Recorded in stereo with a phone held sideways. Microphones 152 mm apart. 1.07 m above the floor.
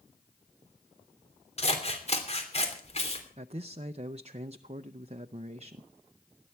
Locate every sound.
1.6 s scissors: 45° left (ahead or behind), 3 m
3.4 s a man speaking: 45° right (ahead or behind), 0.6 m